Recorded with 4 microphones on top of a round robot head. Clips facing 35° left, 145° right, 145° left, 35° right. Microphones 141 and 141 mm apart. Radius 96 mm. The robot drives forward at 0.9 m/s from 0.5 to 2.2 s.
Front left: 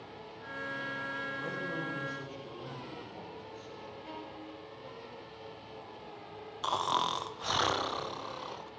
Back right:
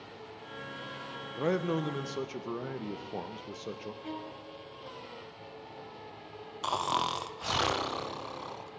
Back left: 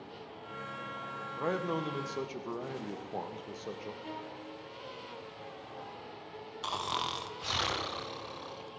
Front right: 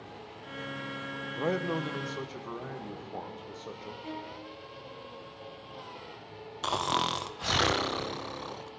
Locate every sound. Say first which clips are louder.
1.3 s a man speaking: back right 12 dB, front right 2 dB; 105° right, 0.8 m; by 3.9 s 140° right, 1.3 m
4.0 s a violin: back right 3 dB, front right 2 dB; 120° right, 4.5 m
6.6 s snoring: back right 1 dB, front right 7 dB; 60° right, 0.6 m